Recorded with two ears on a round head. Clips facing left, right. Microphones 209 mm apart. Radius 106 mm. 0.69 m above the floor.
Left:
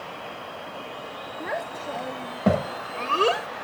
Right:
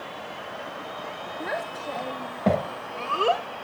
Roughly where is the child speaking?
Centre.